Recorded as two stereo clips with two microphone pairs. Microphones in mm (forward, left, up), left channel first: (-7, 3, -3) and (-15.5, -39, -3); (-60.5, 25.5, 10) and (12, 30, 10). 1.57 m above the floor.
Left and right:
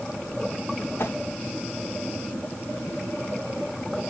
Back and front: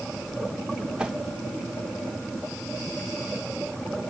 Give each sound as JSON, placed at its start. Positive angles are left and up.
{"t": 1.0, "sound": "a whoosh", "azimuth_deg": 80, "distance_m": 1.0}